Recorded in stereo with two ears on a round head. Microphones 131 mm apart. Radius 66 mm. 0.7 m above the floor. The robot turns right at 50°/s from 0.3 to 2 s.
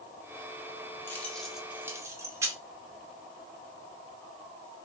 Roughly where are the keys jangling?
Centre.